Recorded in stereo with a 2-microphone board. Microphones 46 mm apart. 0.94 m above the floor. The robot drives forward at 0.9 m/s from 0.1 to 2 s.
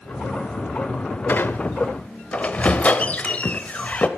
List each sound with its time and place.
1.3 s a squeak: 45° left (ahead or behind), 0.8 m; by 4.1 s 30° left (ahead or behind), 1.1 m